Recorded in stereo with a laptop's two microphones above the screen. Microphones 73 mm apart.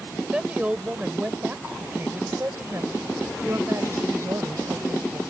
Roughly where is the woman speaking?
Centre.